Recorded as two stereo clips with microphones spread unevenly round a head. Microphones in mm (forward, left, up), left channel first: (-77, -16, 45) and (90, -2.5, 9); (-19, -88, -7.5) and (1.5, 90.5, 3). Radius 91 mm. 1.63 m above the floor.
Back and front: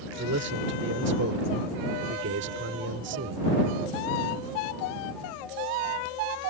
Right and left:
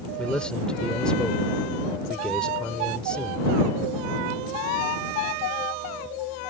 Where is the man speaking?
10° right.